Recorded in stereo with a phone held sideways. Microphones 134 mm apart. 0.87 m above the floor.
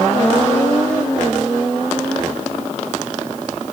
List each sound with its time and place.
Only background noise.